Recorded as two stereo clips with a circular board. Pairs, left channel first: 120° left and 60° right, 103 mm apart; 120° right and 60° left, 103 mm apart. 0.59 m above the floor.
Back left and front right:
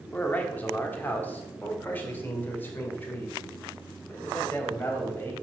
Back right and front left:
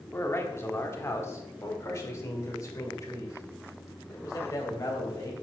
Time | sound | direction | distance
0.1 | a man speaking | 175° right | 1.4 m